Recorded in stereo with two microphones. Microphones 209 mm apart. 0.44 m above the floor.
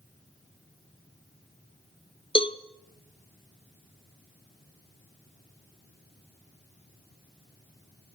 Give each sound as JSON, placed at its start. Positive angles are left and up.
{"t": 2.4, "sound": "a cowbell", "side_deg": 25, "distance_m": 0.9}